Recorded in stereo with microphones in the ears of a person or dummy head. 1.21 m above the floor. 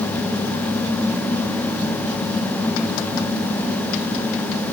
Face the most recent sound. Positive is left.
No sound to turn to.